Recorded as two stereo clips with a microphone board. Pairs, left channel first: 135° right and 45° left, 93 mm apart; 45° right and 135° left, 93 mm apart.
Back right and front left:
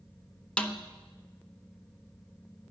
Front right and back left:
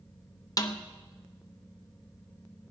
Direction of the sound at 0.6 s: 60° right.